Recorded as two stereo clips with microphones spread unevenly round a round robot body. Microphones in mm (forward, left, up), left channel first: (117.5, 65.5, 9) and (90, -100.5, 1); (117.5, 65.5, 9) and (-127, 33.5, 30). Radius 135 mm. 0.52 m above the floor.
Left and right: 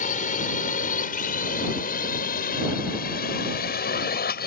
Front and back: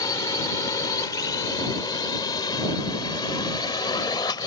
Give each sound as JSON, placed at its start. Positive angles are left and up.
{"t": 0.0, "sound": "a drone", "azimuth_deg": 75}